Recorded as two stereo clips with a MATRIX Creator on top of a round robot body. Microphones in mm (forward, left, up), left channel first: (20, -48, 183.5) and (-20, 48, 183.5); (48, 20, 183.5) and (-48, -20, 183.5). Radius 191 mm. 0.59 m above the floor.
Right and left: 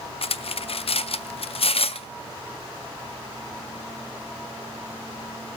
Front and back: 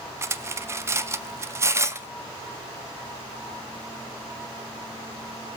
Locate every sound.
0.2 s cutlery clinking: 95° right, 0.6 m